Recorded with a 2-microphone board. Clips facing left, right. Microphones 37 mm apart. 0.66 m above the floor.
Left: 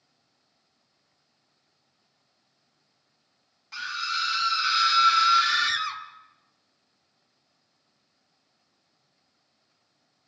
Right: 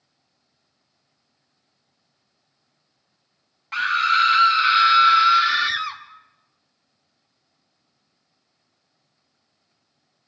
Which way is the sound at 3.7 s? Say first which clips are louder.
Right 12 dB; 50° right (ahead or behind).